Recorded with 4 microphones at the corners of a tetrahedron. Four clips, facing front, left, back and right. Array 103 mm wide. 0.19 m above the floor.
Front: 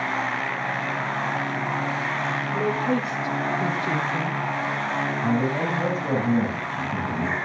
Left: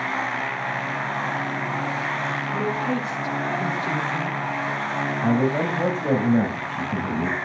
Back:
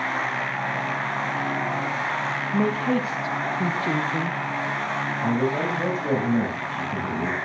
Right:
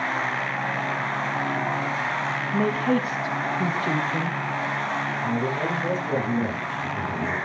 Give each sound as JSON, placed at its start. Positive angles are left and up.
{"t": 2.5, "sound": "a woman speaking", "azimuth_deg": -140, "distance_m": 1.3}
{"t": 5.2, "sound": "a man speaking", "azimuth_deg": 105, "distance_m": 9.0}